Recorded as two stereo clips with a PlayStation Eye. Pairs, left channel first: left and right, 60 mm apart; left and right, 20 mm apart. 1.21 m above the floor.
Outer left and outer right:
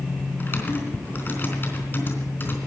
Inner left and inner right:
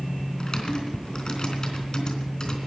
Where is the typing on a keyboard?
35° left (ahead or behind), 3.5 m.